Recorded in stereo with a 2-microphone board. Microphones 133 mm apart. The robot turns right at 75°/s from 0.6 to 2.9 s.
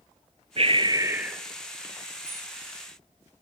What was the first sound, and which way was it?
Breathing, 60° right.